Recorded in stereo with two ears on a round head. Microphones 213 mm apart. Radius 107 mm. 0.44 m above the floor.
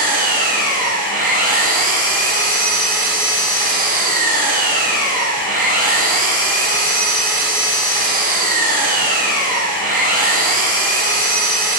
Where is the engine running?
40° right (ahead or behind), 1.7 m.